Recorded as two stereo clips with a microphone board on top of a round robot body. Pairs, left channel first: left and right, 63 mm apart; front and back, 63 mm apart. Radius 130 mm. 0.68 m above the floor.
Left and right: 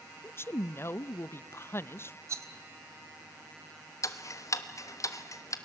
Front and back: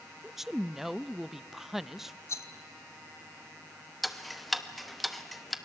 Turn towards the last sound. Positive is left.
turn(degrees=90)